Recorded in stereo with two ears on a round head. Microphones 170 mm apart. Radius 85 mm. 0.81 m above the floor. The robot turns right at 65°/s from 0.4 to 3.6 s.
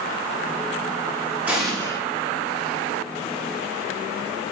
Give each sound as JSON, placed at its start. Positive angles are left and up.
{"t": 1.5, "sound": "an explosion", "azimuth_deg": -10, "distance_m": 1.2}